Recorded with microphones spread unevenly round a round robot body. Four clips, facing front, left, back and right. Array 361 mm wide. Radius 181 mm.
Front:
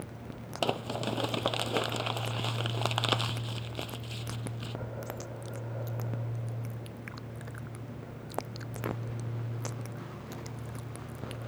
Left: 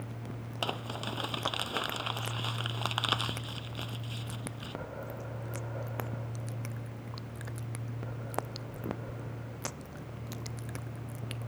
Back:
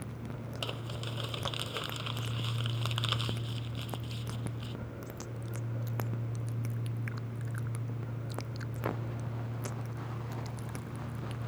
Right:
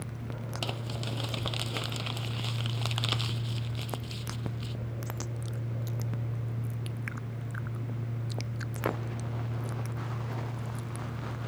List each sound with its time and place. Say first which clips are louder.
0.6 s crumpling: left 3 dB, front 13 dB; straight ahead